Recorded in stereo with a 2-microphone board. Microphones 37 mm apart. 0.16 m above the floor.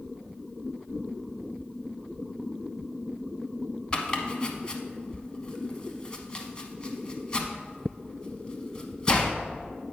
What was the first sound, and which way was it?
Chopping, 25° left (ahead or behind).